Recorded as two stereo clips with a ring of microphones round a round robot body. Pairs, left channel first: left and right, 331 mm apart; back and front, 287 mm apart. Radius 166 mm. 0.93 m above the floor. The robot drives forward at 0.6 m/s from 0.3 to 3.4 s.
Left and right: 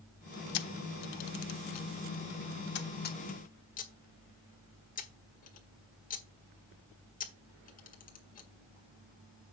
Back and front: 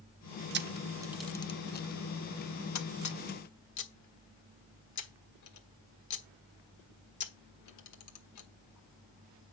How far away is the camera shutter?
About 0.7 m.